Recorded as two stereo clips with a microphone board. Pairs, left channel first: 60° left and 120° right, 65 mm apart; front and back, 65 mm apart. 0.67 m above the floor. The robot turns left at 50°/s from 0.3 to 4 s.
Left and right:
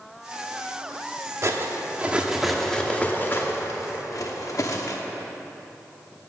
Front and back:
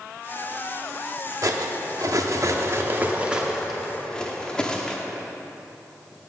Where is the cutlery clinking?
155° right, 0.8 m; by 5.0 s 75° left, 0.8 m.